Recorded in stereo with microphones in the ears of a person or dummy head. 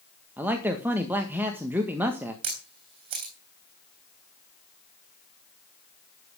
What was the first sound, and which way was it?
A man speaking, 10° right (ahead or behind).